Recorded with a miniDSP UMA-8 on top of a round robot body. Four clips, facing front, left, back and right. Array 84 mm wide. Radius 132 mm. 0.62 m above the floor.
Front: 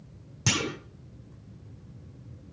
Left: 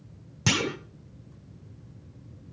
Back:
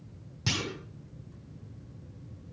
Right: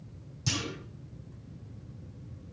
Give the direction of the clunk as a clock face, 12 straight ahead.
10 o'clock.